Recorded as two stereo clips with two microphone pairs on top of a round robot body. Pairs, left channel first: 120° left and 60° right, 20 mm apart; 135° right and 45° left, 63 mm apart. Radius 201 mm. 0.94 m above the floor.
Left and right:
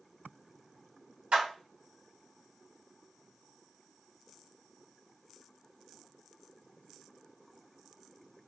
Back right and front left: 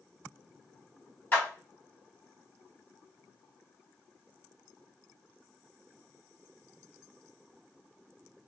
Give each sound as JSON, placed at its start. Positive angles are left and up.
{"t": 1.3, "sound": "a clap", "azimuth_deg": -70, "distance_m": 1.7}